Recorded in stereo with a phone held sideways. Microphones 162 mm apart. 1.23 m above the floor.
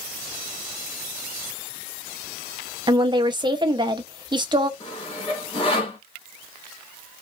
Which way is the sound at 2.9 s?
30° right (ahead or behind).